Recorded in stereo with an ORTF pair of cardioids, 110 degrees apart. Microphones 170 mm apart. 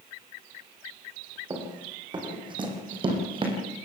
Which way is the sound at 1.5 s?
25° right.